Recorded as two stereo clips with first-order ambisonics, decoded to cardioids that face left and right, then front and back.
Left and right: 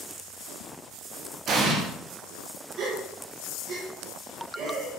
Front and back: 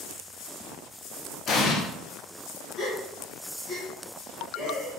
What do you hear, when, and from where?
1.5 s an explosion: 45° right, 0.6 m
2.8 s a gasp: 70° right, 0.9 m